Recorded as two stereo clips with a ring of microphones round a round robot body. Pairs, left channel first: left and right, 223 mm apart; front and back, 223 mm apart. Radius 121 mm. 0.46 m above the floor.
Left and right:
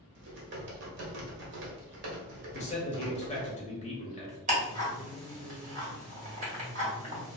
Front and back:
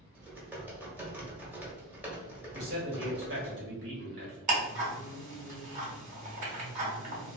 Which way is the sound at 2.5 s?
145° left.